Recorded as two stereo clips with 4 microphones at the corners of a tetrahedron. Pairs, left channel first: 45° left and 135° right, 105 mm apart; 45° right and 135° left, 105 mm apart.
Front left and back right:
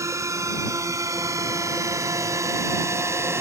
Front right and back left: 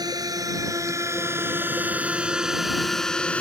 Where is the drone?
175° left; by 3.4 s 110° right.